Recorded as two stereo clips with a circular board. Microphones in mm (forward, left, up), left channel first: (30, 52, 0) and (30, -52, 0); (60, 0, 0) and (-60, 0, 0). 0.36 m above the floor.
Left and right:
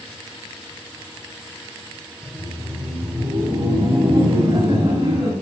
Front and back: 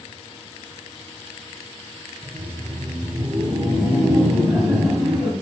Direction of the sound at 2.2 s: 120° right.